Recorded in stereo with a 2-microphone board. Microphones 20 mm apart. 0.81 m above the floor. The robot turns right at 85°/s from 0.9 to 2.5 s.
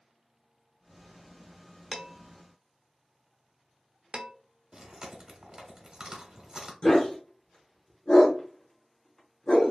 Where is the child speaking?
I don't hear a child speaking.